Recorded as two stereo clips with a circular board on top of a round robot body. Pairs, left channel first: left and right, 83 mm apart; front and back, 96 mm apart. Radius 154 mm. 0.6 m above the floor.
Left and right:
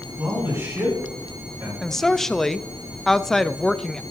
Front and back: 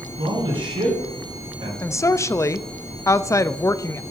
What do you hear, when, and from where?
0.2 s a man speaking: 150° right, 5.5 m
1.8 s a woman speaking: 10° left, 0.6 m